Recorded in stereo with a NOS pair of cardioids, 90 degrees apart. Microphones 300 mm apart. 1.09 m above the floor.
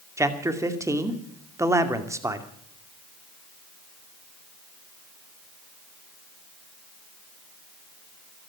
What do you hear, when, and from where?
0.2 s a man speaking: 10° right, 2 m